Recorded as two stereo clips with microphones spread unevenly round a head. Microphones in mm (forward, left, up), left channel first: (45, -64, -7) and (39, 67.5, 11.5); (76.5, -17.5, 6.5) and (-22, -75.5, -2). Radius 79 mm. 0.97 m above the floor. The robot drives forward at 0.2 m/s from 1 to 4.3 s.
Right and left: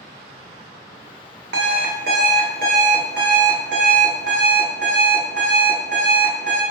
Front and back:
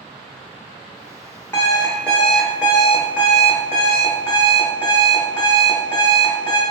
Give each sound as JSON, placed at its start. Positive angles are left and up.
{"t": 1.5, "sound": "an alarm clock", "azimuth_deg": 105, "distance_m": 0.6}